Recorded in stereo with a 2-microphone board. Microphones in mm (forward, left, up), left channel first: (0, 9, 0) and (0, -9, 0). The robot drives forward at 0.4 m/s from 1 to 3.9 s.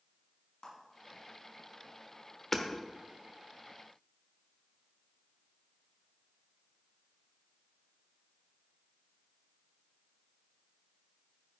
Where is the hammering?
15° left (ahead or behind), 1.2 m.